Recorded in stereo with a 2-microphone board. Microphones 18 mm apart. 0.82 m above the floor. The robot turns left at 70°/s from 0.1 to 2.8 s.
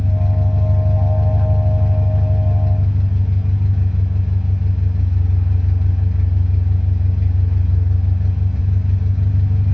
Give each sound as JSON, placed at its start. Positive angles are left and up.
{"t": 0.0, "sound": "an engine running", "azimuth_deg": 40, "distance_m": 0.7}